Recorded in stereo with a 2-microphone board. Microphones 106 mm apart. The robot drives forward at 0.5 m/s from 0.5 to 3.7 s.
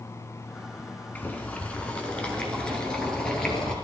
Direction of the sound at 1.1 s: 15° left (ahead or behind).